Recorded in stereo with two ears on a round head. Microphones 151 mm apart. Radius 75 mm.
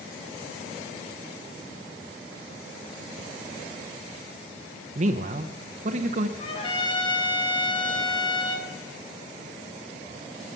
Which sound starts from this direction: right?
A man speaking, at 5.0 s.